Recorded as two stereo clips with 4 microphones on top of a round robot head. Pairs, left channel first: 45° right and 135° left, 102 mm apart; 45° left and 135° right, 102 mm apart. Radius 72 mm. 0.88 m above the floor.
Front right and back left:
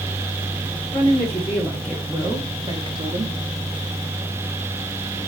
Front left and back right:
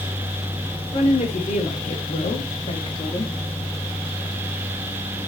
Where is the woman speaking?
20° left, 3 m; by 3.3 s 110° left, 2 m.